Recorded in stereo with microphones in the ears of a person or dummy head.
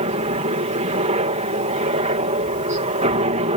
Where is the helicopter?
35° right (ahead or behind).